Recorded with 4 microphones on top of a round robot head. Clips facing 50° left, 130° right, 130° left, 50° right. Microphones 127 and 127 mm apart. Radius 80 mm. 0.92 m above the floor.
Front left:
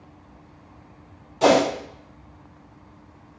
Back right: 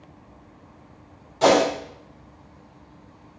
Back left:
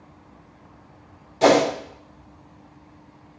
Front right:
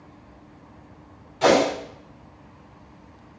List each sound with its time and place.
1.4 s a whoosh: 125° left, 1.1 m